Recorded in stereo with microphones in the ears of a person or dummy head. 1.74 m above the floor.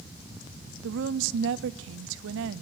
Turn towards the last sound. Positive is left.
turn(degrees=-70)  # may be behind; listen again after turning